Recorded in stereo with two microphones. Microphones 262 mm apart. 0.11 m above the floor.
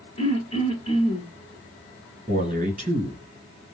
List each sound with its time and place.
0.2 s throat clearing: 20° left (ahead or behind), 1.8 m
2.3 s a man speaking: 25° right (ahead or behind), 1.8 m